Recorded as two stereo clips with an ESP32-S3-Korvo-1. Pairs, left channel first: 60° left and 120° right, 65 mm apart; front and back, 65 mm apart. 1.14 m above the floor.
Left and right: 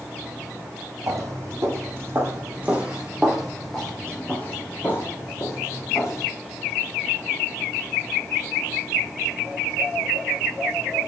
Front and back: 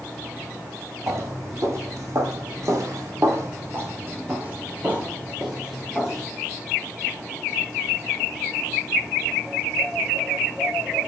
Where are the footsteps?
150° right, 3 m; by 6.3 s 100° left, 4 m.